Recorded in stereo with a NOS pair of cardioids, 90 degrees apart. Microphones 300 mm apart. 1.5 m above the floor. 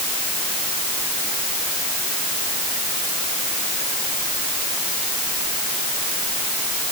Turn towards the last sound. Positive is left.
No sound to turn to.